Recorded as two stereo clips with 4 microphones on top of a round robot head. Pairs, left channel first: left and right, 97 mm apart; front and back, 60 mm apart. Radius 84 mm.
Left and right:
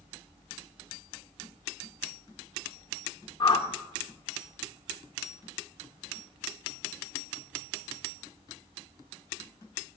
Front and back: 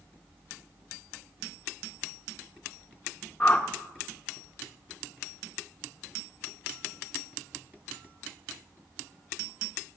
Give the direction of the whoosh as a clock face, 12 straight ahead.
10 o'clock.